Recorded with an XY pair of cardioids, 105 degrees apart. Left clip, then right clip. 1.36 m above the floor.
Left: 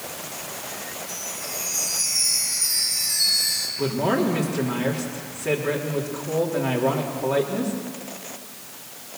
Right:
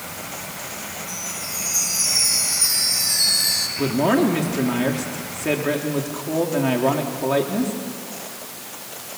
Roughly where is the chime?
Ahead right.